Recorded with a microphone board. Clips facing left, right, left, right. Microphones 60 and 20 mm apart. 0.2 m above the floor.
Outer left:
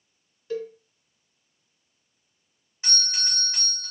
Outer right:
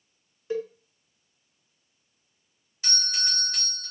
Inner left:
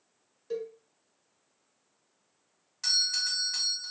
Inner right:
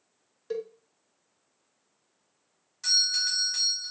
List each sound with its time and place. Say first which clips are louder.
0.5 s a cowbell: outer right 1 dB, inner right 1 dB; 20° right (ahead or behind), 0.6 m
2.8 s a doorbell: outer right 1 dB, inner right 3 dB; 25° left (ahead or behind), 1.7 m